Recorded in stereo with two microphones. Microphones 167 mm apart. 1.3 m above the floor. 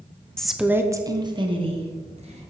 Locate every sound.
0.4 s a woman speaking: 5° left (ahead or behind), 0.6 m; by 2.5 s 40° right (ahead or behind), 1.6 m